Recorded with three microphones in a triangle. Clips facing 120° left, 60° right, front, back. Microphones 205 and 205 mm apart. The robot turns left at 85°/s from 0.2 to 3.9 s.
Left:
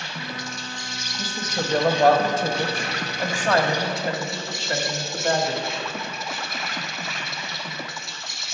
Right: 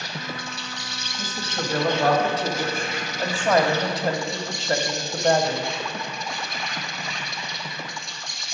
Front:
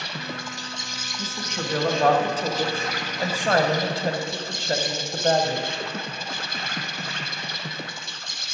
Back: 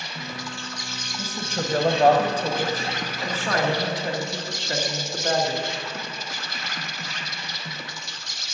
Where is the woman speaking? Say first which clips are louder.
Left 2 dB, back 2 dB; 150° right, 1.2 m; by 5.7 s 25° right, 1.2 m.